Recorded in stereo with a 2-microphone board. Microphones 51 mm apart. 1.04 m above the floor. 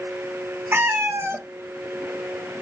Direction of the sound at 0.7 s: 55° right (ahead or behind).